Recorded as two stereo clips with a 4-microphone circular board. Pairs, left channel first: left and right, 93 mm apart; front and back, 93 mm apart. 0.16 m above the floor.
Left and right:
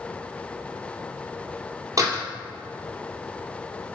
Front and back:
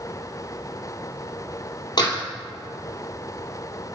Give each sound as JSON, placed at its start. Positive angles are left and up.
{"t": 2.0, "sound": "a door slam", "azimuth_deg": -40, "distance_m": 2.5}